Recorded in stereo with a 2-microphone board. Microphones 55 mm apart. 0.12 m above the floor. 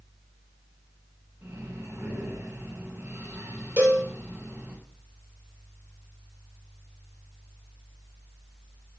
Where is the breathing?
65° right (ahead or behind), 6.5 m.